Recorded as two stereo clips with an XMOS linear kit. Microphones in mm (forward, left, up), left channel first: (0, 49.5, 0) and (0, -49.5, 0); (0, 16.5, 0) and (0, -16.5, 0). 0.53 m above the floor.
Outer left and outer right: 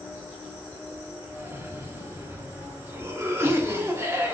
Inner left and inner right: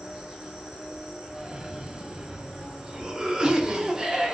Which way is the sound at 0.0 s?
15° right (ahead or behind).